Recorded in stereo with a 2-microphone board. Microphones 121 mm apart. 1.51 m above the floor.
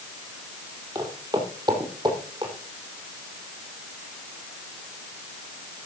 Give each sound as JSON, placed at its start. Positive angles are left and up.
{"t": 0.9, "sound": "footsteps", "side_deg": -30, "distance_m": 3.0}